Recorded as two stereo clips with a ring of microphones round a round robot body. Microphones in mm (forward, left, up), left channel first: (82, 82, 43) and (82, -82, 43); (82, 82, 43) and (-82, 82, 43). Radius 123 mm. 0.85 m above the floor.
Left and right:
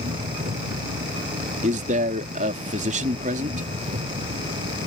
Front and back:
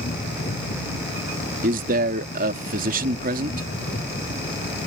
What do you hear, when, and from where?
0.0 s an engine running: 50° right
1.6 s a man speaking: 140° right